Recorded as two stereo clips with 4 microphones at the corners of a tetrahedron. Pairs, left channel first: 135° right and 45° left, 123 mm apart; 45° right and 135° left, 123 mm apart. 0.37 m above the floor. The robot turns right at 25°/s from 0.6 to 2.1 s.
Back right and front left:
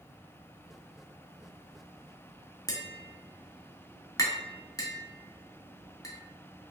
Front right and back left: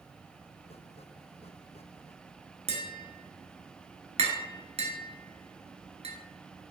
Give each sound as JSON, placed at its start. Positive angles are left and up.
{"t": 2.7, "sound": "tapping", "azimuth_deg": 165, "distance_m": 0.8}